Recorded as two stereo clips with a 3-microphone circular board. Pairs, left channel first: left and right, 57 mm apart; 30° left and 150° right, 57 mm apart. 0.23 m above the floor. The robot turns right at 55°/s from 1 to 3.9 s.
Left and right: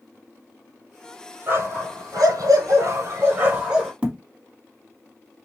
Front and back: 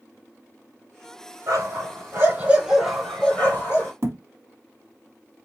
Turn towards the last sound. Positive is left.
turn(degrees=-155)